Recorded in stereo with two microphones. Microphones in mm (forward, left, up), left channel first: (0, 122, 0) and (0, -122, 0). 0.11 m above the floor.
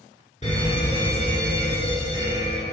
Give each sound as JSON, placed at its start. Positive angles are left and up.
{"t": 0.4, "sound": "a fire alarm", "side_deg": 30, "distance_m": 2.0}